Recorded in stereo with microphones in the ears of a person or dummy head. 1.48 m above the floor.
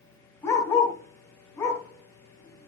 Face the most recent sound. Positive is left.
turn(degrees=10)  # may be behind; listen again after turning